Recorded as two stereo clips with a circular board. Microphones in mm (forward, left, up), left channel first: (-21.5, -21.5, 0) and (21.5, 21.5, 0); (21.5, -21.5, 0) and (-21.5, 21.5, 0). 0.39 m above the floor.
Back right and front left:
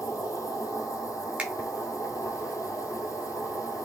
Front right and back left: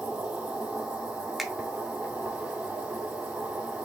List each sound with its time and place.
0.0 s an insect: 150° right, 1.7 m
1.4 s a finger snap: 50° left, 0.7 m